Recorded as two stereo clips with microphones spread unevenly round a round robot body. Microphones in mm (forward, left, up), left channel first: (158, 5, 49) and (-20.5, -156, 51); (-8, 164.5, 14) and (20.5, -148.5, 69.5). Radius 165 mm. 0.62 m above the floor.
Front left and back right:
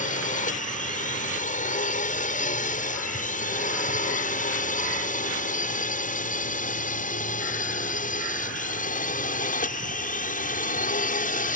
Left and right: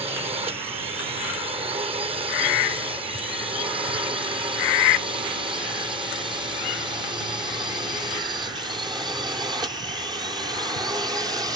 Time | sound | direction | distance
0.0 | a drone | 10° right | ?